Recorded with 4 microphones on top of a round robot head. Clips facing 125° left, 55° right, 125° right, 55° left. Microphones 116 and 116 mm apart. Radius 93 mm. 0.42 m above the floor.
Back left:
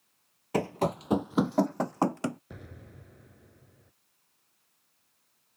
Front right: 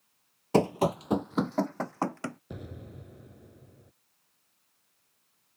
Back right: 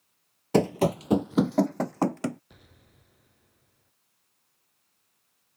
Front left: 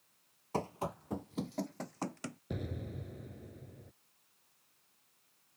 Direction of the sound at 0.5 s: 115° right.